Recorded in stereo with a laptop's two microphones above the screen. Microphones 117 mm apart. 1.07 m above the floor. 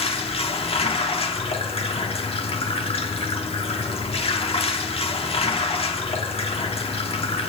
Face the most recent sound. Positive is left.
turn(degrees=60)  # may be behind; listen again after turning